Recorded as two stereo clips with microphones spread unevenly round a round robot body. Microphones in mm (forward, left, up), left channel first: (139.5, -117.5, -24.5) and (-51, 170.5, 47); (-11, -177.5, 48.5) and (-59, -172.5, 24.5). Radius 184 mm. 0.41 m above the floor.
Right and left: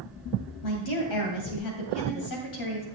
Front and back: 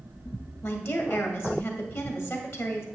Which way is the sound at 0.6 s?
55° right.